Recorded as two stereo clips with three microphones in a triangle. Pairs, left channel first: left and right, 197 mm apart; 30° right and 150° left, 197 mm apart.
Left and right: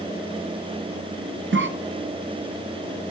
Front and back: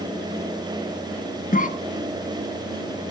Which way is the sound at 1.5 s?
80° right.